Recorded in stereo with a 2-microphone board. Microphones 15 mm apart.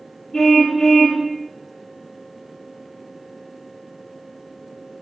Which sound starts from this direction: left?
A car horn, at 0.3 s.